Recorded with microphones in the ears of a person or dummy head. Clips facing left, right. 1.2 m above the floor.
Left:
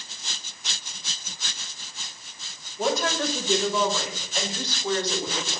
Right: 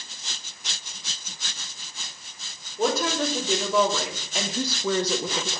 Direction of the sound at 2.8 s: 45° right (ahead or behind).